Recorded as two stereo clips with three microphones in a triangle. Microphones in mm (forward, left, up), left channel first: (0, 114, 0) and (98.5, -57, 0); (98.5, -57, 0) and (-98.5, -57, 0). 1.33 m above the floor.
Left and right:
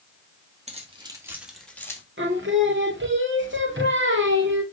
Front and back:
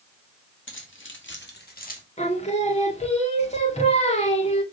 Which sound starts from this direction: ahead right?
Singing, at 2.2 s.